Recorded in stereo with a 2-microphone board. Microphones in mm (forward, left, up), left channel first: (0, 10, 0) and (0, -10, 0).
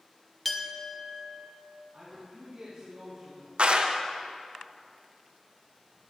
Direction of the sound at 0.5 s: 5° left (ahead or behind).